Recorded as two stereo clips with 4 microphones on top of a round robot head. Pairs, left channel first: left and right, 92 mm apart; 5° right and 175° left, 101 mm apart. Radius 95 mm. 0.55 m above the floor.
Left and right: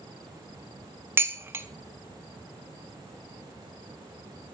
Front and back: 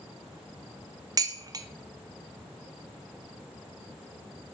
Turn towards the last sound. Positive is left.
turn(degrees=-150)